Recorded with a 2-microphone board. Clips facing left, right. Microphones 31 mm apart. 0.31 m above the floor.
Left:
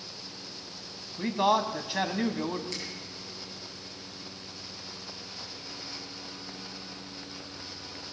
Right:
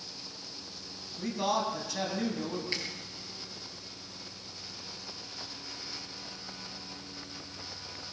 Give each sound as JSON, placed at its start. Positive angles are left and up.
{"t": 1.2, "sound": "a man speaking", "side_deg": 35, "distance_m": 2.5}
{"t": 2.7, "sound": "a finger snap", "side_deg": -35, "distance_m": 5.0}